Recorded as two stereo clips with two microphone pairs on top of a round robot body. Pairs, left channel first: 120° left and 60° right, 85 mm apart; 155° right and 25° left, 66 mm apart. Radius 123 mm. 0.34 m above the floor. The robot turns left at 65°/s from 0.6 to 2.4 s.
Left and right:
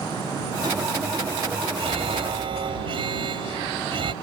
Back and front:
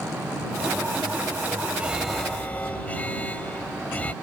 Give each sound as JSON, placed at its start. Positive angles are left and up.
{"t": 1.8, "sound": "an alarm", "azimuth_deg": -45}